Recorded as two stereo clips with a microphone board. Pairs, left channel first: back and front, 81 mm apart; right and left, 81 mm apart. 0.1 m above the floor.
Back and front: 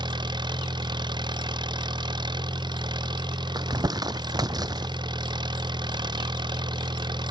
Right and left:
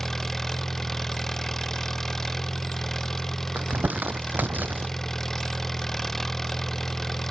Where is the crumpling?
25° left.